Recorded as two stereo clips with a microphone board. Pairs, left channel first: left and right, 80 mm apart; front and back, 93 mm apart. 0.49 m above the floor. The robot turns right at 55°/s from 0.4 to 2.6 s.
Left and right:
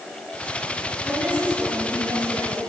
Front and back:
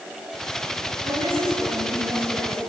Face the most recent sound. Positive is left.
turn(degrees=-95)